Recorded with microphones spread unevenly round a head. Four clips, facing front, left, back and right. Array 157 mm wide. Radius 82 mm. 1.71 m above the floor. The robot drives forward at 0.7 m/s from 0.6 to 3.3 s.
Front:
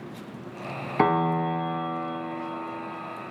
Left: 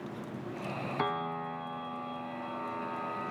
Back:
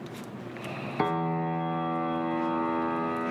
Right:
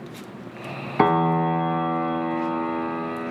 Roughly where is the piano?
Ahead right.